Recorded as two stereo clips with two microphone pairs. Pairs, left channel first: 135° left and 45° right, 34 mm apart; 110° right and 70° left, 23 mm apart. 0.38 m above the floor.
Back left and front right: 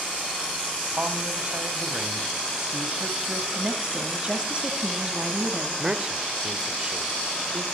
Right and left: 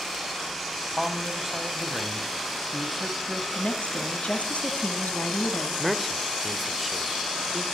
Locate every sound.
0.8 s a man speaking: 10° right, 3 m
3.5 s a woman speaking: 105° right, 3.5 m
5.8 s a man speaking: 15° right, 1.4 m